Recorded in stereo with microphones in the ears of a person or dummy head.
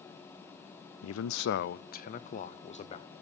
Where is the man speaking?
85° left, 0.5 m; by 3.1 s 35° left (ahead or behind), 1.4 m.